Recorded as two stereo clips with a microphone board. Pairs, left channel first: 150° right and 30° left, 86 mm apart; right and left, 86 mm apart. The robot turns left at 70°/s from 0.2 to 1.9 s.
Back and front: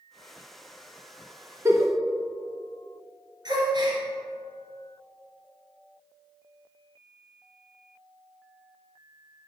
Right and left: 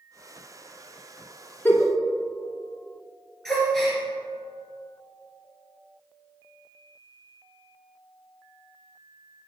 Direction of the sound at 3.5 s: 5° right.